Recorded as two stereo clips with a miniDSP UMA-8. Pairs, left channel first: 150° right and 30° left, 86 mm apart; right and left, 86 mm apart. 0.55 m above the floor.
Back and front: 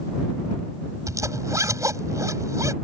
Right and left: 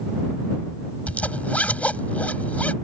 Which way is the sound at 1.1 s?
20° right.